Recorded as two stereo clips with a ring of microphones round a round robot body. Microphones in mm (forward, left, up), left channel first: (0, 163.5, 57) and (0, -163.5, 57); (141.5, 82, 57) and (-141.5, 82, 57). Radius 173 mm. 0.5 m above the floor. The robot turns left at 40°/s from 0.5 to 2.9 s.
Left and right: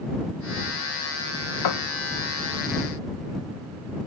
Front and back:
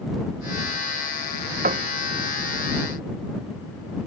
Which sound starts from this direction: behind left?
A piano, at 1.6 s.